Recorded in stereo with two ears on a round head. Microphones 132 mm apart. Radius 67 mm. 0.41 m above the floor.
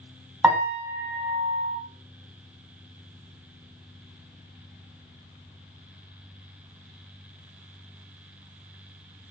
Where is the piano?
10° right (ahead or behind), 1.0 m.